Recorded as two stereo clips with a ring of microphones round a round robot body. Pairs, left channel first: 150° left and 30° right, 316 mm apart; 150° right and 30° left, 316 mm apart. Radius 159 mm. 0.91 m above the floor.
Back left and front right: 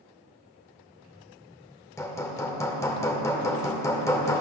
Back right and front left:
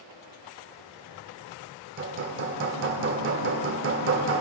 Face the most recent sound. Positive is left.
turn(degrees=70)